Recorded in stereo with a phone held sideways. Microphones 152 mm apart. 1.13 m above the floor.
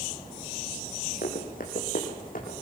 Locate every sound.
1.2 s running footsteps: 70° left (ahead or behind), 4 m; by 2.6 s 65° left (ahead or behind), 4.5 m